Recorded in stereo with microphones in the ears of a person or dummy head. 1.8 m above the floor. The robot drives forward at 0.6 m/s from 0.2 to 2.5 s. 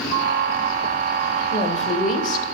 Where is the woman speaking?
35° left (ahead or behind), 2 m; by 2.5 s 45° left (ahead or behind), 1.8 m.